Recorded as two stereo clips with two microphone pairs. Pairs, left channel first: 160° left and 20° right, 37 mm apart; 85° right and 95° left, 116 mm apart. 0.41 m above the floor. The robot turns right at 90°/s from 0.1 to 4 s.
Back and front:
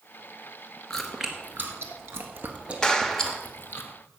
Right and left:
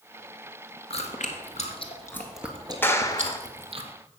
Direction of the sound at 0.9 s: 125° right.